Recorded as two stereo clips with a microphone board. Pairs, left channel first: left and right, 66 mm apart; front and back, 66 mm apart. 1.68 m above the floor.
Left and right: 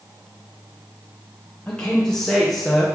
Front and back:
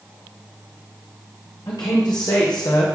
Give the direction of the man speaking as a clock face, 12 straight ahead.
11 o'clock.